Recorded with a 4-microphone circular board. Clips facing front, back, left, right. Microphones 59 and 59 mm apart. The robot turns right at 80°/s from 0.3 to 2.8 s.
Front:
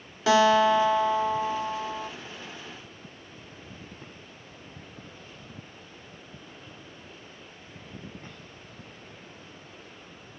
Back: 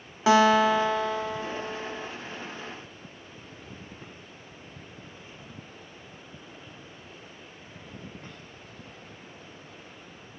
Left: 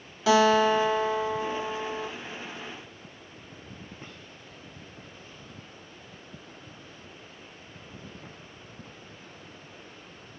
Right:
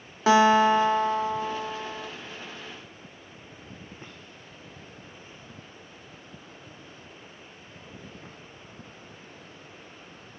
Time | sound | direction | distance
0.3 | a guitar | 130° right | 1.0 m